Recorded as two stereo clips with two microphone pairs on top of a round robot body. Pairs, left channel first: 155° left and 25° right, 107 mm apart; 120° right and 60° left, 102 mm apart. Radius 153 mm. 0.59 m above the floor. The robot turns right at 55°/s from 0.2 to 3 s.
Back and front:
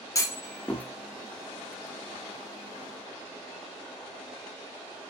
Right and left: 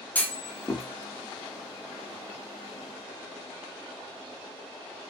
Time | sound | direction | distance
0.1 | a clunk | 175° right | 0.5 m